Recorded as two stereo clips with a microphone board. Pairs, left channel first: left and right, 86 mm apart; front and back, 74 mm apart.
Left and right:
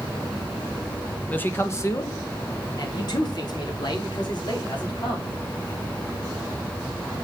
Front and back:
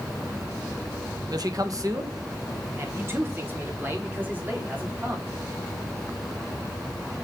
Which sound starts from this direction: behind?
A man speaking, at 1.3 s.